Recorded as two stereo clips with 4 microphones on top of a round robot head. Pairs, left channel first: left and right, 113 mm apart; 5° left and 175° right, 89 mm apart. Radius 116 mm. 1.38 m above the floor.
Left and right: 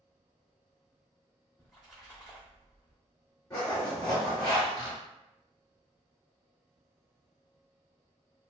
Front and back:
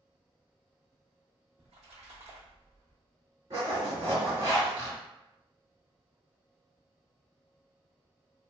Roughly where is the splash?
Behind.